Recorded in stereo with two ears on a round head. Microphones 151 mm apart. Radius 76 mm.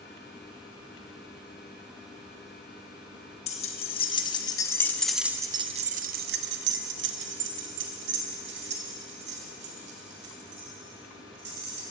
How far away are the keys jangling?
About 1.3 m.